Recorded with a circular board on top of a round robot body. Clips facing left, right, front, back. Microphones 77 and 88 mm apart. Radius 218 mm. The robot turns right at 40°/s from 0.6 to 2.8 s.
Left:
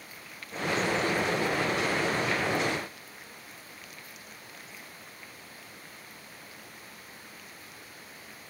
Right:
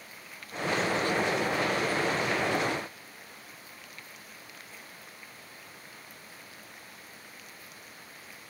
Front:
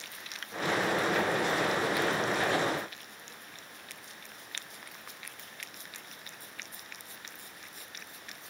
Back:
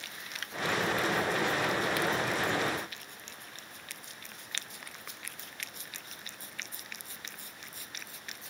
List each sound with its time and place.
Only background noise.